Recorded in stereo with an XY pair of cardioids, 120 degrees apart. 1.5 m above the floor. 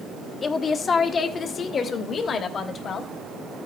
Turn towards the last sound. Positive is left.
turn(degrees=45)